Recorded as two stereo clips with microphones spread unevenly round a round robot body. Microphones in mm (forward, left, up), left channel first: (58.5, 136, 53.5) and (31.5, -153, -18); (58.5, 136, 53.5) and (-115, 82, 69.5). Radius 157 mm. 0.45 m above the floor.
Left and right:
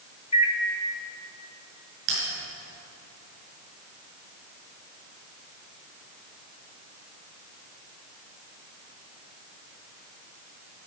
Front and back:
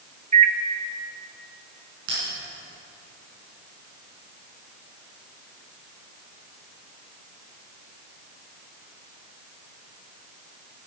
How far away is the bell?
About 5.5 m.